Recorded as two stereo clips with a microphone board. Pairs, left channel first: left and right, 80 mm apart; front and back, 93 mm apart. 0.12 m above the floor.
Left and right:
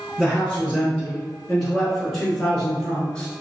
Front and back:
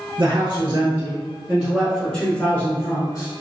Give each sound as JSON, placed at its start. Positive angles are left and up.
{"t": 0.2, "sound": "a man speaking", "azimuth_deg": -175, "distance_m": 1.6}